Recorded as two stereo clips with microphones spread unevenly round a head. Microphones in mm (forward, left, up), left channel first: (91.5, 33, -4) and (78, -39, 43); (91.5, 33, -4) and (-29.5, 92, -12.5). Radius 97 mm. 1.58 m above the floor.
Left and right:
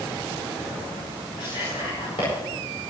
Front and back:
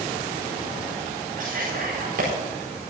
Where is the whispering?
140° left, 4.5 m.